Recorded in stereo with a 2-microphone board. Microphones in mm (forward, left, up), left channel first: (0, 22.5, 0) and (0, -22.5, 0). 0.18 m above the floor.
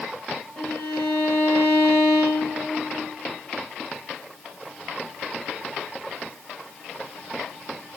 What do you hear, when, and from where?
0.6 s a violin: 15° left (ahead or behind), 1.3 m